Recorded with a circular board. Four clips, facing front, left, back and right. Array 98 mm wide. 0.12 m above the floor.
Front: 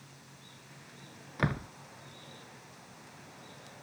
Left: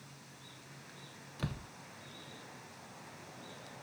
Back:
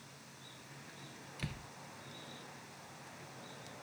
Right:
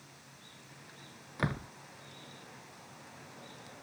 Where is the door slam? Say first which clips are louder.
Right 7 dB, front 14 dB; 30° right.